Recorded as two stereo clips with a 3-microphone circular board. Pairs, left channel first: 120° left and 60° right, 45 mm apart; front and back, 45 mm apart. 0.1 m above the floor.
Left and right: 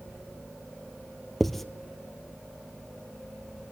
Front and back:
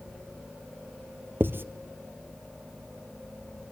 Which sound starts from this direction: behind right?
Writing, at 1.4 s.